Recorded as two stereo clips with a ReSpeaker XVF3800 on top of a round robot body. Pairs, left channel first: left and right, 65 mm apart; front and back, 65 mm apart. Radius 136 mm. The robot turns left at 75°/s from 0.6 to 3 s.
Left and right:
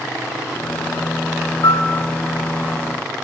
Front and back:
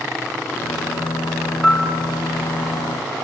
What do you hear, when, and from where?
1.6 s a piano: 90° left, 1.7 m; by 1.9 s 65° left, 1.7 m